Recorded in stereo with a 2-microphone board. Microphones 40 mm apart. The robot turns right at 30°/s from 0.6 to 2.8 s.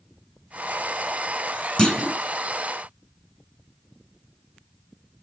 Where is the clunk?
20° left (ahead or behind), 1.1 m; by 2.2 s 10° left (ahead or behind), 1.1 m.